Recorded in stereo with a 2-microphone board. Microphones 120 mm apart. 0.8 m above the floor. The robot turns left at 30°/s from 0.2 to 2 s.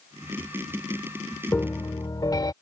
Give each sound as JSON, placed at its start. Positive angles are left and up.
{"t": 1.5, "sound": "a piano", "side_deg": 20}